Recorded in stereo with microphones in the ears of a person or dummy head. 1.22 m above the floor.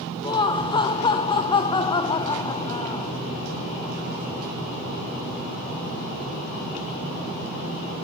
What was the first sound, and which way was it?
Laughter, 30° left (ahead or behind).